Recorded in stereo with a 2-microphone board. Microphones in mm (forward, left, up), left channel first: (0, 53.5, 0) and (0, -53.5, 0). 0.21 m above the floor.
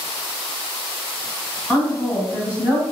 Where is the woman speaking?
10° left (ahead or behind), 1.7 m; by 2.8 s 25° right (ahead or behind), 1.7 m.